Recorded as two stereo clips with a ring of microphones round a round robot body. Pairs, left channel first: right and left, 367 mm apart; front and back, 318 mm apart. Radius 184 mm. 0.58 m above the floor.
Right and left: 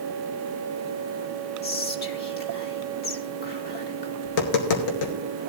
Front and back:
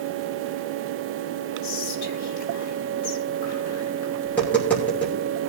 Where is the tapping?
85° right, 2 m.